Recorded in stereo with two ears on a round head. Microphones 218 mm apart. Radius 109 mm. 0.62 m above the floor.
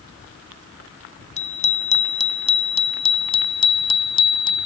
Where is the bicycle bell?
30° left (ahead or behind); by 4.7 s 20° left (ahead or behind).